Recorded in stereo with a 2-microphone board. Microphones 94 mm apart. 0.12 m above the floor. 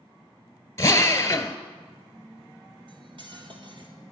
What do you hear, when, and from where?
0.8 s a drill: 30° left (ahead or behind), 1.0 m
2.9 s cutlery clinking: 55° right (ahead or behind), 1.8 m